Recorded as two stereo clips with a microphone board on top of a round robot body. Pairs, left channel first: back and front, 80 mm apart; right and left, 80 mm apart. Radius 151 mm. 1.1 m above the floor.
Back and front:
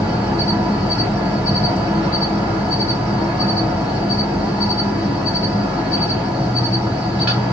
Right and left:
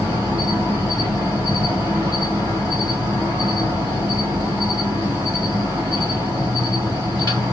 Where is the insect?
65° left, 1.2 m.